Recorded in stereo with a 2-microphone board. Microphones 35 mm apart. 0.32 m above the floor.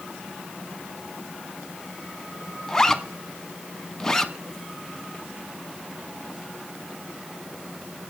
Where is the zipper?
10° left (ahead or behind), 1.3 m.